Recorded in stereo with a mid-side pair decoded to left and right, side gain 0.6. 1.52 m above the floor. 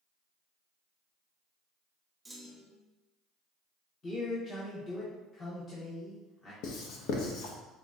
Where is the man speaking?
30° left, 1.3 m.